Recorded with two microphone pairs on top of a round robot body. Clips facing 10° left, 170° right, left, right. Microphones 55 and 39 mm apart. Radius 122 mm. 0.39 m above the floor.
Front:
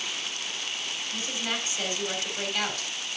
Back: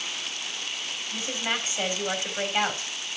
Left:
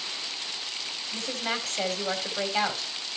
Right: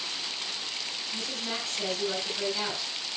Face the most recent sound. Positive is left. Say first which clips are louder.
# back 3 dB, left 5 dB
turn(degrees=125)